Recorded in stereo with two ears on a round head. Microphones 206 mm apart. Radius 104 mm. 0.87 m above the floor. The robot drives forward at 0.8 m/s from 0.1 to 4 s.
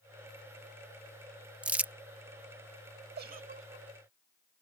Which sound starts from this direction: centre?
Crumpling, at 1.6 s.